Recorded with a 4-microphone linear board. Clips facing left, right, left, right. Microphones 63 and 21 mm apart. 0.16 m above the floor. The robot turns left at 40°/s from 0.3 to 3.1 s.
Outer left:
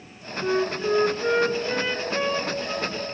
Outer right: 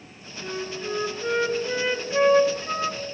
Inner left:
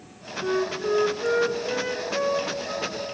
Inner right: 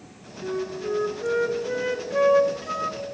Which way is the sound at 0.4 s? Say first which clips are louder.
Outer left 8 dB, inner left 3 dB; 50° left.